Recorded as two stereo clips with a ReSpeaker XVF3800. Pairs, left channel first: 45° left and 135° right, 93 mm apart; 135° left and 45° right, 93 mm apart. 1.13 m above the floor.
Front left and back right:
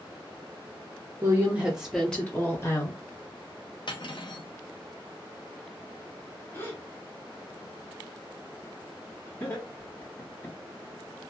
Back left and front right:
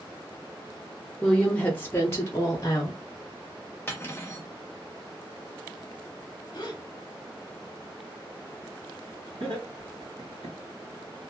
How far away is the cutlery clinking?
About 0.8 m.